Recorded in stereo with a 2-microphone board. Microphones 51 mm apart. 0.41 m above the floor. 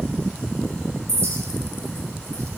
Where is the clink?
75° right (ahead or behind), 1.6 m.